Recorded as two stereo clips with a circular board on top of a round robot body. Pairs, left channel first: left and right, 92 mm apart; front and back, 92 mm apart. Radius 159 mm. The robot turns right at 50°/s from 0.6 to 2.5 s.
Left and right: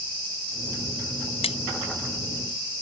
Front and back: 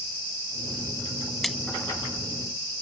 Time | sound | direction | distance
1.4 | a splash | 85° left | ?